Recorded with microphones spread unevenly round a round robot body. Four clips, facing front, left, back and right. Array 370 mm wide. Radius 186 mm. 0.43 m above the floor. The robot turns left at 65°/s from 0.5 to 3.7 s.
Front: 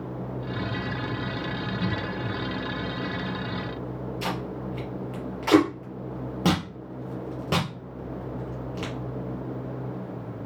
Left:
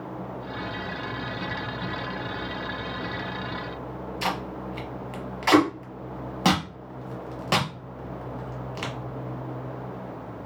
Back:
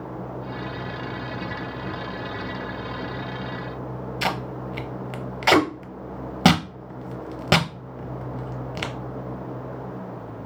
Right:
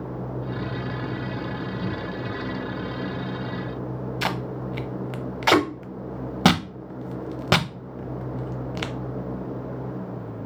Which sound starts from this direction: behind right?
Tape being pulled, at 4.2 s.